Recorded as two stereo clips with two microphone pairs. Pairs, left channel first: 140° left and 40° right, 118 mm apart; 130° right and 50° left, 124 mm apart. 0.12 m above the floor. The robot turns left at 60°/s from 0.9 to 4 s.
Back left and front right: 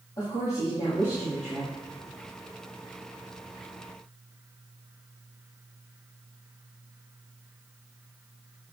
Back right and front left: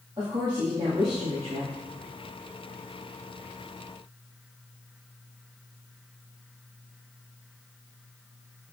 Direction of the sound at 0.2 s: 85° left.